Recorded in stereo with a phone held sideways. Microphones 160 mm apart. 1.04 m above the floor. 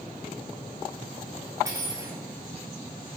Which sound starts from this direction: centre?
Cutlery clinking, at 1.6 s.